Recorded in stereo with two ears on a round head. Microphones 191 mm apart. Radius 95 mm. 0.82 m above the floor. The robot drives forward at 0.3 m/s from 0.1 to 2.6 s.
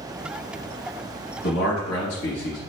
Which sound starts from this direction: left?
A man speaking, at 1.4 s.